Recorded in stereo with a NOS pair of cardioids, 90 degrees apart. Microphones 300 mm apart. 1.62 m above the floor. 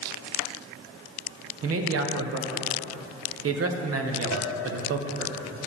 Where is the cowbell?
65° right, 1.3 m.